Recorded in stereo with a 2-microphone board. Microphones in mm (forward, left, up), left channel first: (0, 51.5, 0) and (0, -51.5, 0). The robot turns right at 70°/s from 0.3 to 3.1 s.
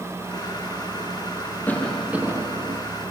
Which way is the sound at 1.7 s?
160° left.